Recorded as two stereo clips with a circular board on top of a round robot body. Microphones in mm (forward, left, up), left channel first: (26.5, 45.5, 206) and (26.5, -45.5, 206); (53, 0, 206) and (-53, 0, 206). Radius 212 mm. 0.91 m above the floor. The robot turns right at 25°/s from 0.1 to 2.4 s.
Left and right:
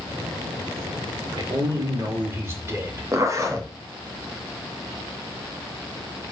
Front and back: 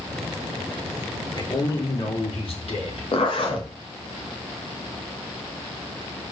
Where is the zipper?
35° right, 2 m.